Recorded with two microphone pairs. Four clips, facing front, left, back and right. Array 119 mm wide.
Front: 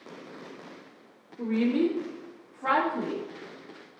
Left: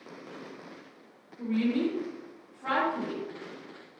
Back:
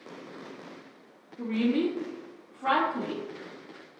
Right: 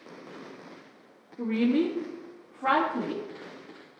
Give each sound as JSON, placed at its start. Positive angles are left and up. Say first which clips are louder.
{"t": 1.4, "sound": "a woman speaking", "louder": "right 3 dB, front 1 dB", "azimuth_deg": -115, "distance_m": 3.5}